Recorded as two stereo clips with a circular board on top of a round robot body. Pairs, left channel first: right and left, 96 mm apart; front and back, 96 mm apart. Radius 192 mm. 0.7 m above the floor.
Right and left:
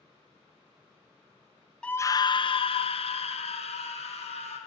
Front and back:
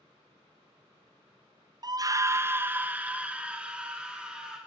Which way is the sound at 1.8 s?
165° right.